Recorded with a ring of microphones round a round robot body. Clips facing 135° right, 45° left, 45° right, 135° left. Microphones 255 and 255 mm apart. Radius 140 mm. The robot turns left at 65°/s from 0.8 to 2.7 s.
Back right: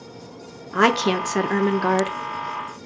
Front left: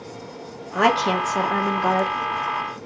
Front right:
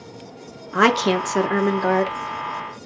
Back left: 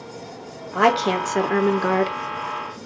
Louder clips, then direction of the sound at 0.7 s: Back right 2 dB, front right 2 dB; 90° right.